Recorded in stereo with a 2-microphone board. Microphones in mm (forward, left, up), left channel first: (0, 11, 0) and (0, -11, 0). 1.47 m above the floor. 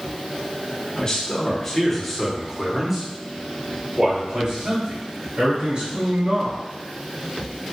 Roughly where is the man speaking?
Left.